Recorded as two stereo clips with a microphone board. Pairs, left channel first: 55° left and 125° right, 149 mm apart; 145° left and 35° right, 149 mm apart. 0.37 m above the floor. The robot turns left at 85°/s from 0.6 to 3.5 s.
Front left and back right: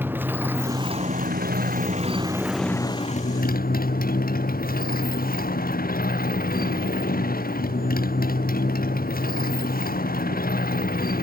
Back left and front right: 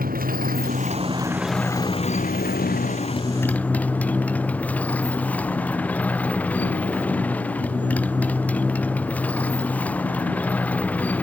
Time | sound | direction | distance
0.0 | a motorcycle | 45° right | ?